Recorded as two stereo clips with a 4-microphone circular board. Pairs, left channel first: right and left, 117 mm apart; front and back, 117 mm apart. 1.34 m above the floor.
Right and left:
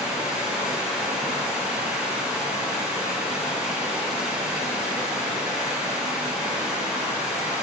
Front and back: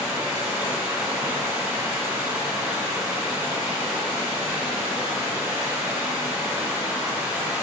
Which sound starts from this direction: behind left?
Running water, at 0.0 s.